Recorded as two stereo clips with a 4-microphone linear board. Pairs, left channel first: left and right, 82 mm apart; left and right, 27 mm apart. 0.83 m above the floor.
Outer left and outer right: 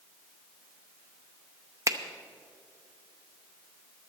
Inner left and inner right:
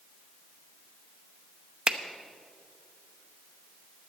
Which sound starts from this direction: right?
A finger snap, at 1.9 s.